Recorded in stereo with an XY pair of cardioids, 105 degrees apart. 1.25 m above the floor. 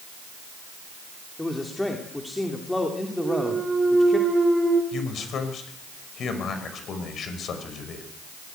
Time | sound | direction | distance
1.4 | a man speaking | 10° left | 3 m
3.2 | a clunk | 25° right | 5 m
4.9 | a man speaking | 55° left | 5.5 m